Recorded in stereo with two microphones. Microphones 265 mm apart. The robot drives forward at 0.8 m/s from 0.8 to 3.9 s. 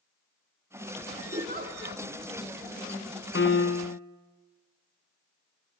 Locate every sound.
1.3 s a giggle: 30° right (ahead or behind), 2.5 m; by 2.0 s 40° right (ahead or behind), 1.9 m
3.4 s a piano: 45° left (ahead or behind), 1.0 m; by 4.0 s 70° left (ahead or behind), 0.8 m